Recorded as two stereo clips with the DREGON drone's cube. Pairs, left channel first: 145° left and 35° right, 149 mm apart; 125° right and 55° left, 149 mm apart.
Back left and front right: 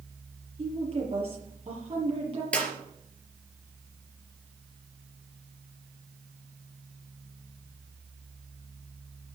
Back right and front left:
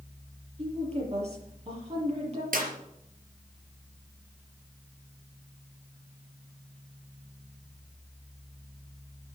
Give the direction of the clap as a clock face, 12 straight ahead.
10 o'clock.